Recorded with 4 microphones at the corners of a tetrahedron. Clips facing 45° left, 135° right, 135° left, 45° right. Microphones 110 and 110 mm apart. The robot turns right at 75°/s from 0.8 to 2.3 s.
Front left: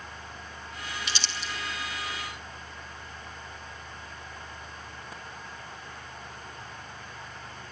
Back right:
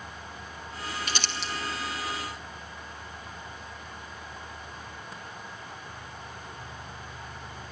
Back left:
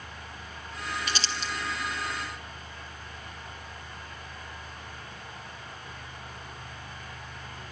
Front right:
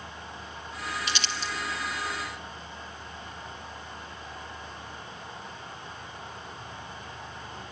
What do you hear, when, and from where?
1.1 s crumpling: straight behind, 1.1 m; by 1.5 s 145° right, 1.1 m